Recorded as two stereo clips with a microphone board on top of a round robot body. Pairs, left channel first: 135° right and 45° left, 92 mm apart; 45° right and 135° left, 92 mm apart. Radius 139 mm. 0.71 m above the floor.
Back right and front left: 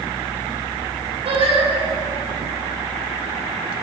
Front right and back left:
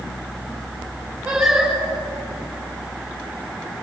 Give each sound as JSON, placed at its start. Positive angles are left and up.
{"t": 1.2, "sound": "singing", "azimuth_deg": 50, "distance_m": 6.0}